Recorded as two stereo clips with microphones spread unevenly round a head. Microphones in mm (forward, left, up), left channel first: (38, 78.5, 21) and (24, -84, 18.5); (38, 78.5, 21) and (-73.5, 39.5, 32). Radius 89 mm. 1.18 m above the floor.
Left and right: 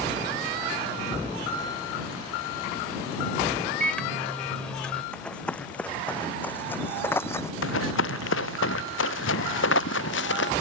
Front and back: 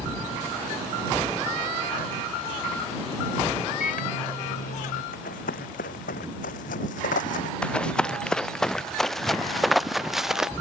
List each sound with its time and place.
3.8 s a microwave: straight ahead
5.1 s running footsteps: straight ahead; by 7.5 s 15° left
7.6 s running footsteps: 100° left; by 10.5 s 115° left